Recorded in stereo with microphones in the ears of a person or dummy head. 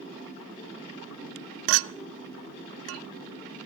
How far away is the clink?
About 0.5 m.